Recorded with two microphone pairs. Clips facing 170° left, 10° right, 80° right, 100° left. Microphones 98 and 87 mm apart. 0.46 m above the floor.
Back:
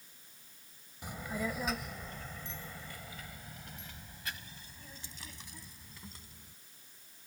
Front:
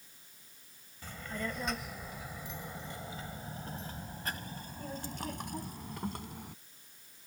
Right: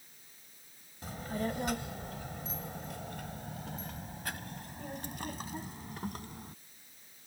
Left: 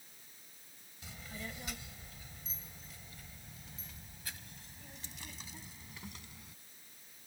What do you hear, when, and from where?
1.0 s a child speaking: 115° right; by 6.5 s 35° right